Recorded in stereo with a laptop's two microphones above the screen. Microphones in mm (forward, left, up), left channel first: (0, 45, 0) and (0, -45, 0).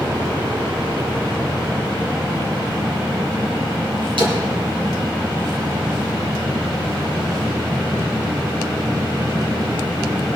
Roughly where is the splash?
Right.